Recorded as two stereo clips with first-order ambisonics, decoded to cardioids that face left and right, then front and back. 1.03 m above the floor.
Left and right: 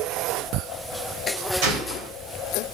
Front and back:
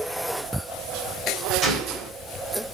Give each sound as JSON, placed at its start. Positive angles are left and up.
{"t": 1.6, "sound": "a gunshot", "azimuth_deg": -105, "distance_m": 3.0}